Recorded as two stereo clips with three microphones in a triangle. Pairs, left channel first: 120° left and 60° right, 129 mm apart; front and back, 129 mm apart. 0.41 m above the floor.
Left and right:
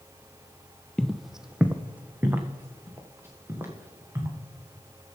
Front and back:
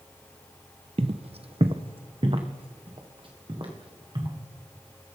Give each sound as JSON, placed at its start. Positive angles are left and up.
{"t": 1.0, "sound": "footsteps", "azimuth_deg": -160, "distance_m": 0.6}